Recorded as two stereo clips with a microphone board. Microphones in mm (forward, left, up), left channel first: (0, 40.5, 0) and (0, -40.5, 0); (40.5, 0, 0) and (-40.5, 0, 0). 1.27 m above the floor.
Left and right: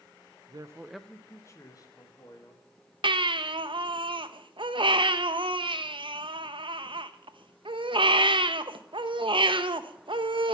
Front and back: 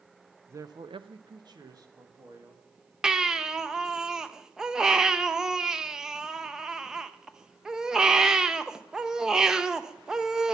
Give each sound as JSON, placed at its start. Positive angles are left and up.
{"t": 0.5, "sound": "a man speaking", "azimuth_deg": -120, "distance_m": 0.6}
{"t": 3.0, "sound": "a baby crying", "azimuth_deg": -100, "distance_m": 0.6}